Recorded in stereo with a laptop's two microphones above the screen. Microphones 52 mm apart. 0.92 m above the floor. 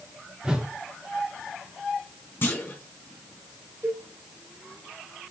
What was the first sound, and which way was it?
A whoosh, 20° right (ahead or behind).